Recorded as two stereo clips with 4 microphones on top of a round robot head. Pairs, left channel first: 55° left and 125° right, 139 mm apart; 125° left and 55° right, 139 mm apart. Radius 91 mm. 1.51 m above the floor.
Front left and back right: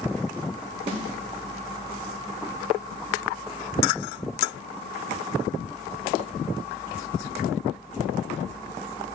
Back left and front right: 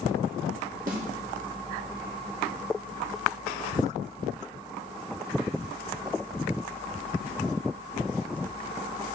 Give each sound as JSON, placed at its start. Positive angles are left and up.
{"t": 0.9, "sound": "a snare drum", "azimuth_deg": -80, "distance_m": 0.9}